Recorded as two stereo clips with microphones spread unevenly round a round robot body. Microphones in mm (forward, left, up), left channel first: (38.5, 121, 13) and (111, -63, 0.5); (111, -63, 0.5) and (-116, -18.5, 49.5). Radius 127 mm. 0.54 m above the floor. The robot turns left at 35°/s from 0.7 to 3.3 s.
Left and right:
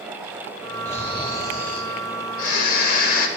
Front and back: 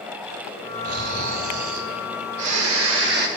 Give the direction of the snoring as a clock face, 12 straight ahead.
5 o'clock.